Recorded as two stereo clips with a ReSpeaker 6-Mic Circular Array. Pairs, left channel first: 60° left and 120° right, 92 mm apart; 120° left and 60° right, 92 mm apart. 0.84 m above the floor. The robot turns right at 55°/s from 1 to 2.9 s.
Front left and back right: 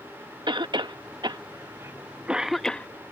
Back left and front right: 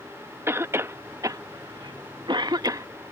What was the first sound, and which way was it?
A cough, 115° right.